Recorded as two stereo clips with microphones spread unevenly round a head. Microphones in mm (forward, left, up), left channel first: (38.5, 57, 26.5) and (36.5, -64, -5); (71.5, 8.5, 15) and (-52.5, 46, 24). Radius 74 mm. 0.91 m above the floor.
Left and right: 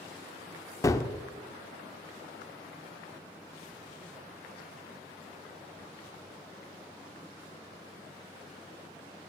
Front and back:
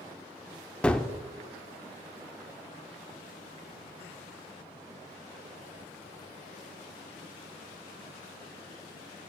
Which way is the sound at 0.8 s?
65° left.